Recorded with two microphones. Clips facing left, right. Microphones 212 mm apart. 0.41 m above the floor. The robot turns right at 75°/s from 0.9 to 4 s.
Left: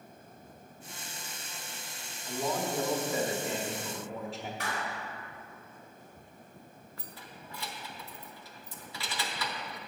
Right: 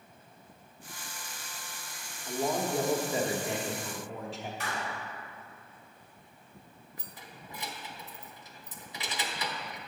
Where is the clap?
65° left (ahead or behind), 2 m.